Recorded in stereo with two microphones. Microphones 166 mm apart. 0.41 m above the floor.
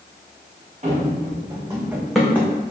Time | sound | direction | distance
0.8 | running footsteps | 40° right (ahead or behind) | 1.9 m